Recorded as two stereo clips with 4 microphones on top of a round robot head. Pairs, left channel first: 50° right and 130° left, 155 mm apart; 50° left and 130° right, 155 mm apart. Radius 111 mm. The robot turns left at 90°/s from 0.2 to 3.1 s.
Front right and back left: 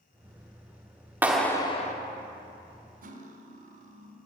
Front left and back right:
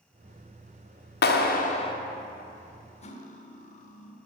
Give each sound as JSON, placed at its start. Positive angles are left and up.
{"t": 1.2, "sound": "a clap", "azimuth_deg": 55, "distance_m": 1.5}
{"t": 3.0, "sound": "cutlery clinking", "azimuth_deg": 100, "distance_m": 1.6}